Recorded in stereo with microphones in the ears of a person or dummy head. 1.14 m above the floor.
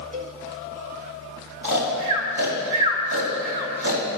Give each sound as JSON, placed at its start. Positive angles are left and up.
{"t": 0.1, "sound": "a cowbell", "side_deg": -45, "distance_m": 1.6}
{"t": 1.6, "sound": "snoring", "side_deg": -65, "distance_m": 3.0}